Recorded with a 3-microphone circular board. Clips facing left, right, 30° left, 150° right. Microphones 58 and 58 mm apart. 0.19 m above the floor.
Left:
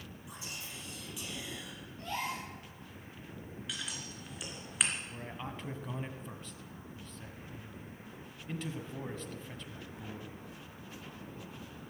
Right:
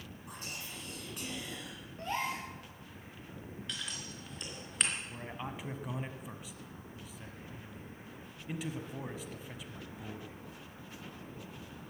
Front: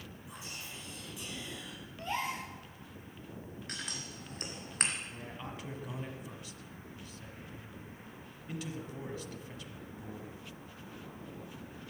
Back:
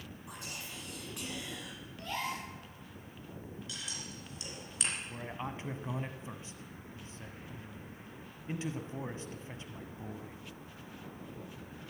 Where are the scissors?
5° left, 3 m.